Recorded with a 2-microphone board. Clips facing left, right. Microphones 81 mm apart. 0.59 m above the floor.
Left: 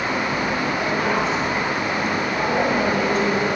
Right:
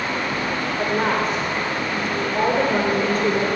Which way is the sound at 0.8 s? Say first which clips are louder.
Right 3 dB; 45° right (ahead or behind).